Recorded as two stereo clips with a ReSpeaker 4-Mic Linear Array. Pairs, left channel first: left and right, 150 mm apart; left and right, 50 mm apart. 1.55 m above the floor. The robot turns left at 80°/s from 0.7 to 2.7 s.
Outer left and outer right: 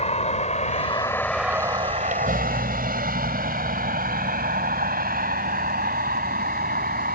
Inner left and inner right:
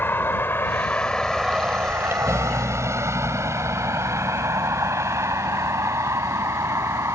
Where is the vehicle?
50° left (ahead or behind); by 7.1 s 85° right.